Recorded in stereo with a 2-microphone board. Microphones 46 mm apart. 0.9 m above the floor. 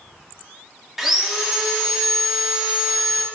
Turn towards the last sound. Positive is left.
turn(degrees=-10)  # may be behind; listen again after turning